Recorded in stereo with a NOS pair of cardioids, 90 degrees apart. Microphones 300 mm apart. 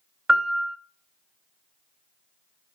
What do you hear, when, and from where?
0.3 s a piano: 5° right, 0.6 m